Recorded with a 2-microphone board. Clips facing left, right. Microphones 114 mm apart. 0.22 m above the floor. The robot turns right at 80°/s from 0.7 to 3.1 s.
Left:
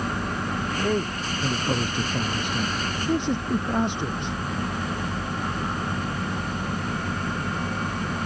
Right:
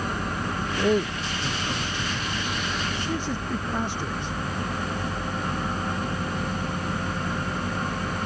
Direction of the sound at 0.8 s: 25° right.